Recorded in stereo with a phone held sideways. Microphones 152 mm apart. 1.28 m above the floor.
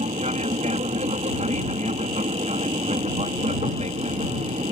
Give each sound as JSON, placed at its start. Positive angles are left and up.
{"t": 0.0, "sound": "an aircraft", "side_deg": -45}